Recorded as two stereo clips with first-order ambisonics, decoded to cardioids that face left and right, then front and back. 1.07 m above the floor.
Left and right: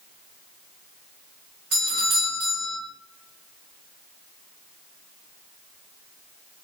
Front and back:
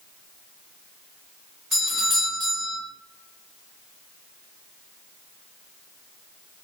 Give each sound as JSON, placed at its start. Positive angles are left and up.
{"t": 1.7, "sound": "a doorbell", "azimuth_deg": -80, "distance_m": 1.0}